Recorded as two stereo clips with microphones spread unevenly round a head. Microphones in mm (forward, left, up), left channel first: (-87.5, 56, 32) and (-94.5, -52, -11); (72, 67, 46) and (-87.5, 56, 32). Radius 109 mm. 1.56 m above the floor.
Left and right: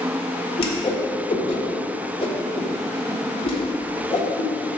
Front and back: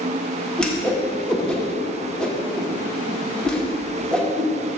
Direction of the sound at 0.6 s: 85° left.